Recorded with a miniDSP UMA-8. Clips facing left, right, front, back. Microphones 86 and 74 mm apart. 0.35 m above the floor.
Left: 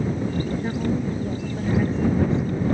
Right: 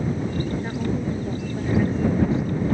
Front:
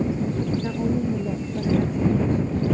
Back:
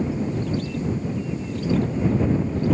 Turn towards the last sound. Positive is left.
turn(degrees=-5)